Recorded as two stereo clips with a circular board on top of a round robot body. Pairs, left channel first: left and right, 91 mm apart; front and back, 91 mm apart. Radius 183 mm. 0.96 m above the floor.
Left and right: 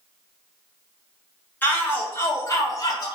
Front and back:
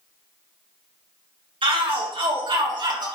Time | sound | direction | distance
1.6 | a shout | 160° left | 3 m